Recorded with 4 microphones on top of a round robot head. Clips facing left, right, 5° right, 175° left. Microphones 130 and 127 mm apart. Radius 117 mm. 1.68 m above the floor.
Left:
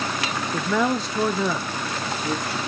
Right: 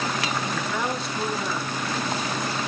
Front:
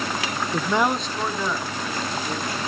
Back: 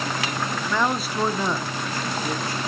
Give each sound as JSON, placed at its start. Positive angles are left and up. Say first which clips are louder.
{"t": 0.5, "sound": "a man speaking", "louder": "left 5 dB, front 3 dB", "azimuth_deg": 25, "distance_m": 0.6}